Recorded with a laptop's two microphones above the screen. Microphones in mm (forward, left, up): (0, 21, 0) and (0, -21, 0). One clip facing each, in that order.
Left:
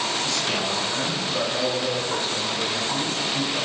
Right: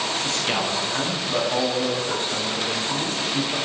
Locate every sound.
0.2 s a man speaking: 45° right (ahead or behind), 9 m; by 3.6 s 60° right (ahead or behind), 8 m